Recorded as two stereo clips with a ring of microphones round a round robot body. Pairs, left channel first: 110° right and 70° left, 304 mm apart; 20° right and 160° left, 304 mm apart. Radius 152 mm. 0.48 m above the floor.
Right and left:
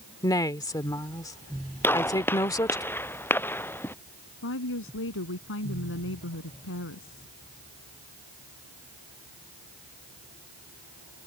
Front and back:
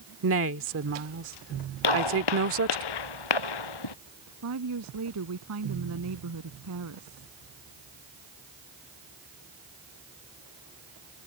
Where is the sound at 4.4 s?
160° right.